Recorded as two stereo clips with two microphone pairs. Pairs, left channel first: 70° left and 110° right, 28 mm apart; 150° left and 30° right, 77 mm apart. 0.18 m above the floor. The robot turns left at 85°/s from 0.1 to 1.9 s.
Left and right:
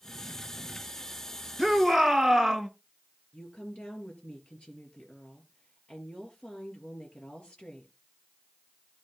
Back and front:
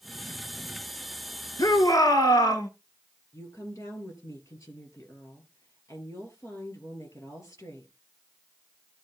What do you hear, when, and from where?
1.6 s a shout: 170° left, 2.5 m; by 2.7 s 145° left, 2.5 m
3.3 s a woman speaking: 105° left, 3.5 m